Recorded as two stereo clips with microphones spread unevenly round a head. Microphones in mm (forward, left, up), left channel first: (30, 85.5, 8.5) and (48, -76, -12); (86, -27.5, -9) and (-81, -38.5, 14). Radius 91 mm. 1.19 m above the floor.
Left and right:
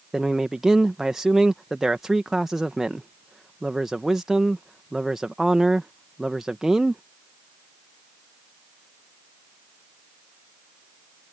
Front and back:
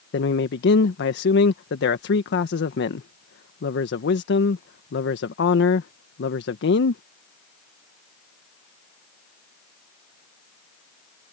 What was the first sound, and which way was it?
A man speaking, 5° left.